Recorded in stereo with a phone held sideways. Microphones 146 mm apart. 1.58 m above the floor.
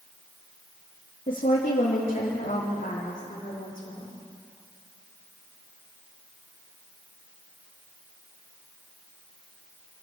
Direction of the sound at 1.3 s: 75° left (ahead or behind).